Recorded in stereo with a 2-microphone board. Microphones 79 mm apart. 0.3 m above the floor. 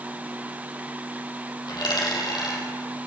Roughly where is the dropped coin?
Left.